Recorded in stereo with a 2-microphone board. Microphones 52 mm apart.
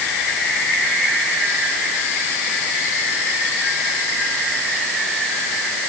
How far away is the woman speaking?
I don't hear a woman speaking.